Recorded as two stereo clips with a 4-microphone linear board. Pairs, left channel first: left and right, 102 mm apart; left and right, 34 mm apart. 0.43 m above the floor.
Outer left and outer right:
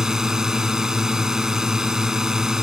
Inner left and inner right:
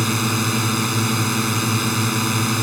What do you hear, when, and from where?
0.0 s a drone: 5° right (ahead or behind)